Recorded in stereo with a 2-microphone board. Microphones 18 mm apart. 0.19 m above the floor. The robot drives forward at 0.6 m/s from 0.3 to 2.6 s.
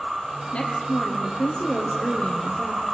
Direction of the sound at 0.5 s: 70° left (ahead or behind).